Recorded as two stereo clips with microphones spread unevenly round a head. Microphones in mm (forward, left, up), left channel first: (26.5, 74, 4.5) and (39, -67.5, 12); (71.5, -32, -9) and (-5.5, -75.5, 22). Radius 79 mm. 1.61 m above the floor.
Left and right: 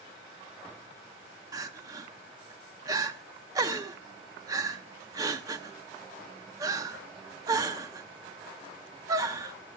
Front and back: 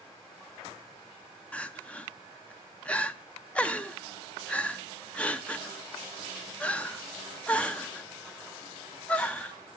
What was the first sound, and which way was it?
Crying, 70° right.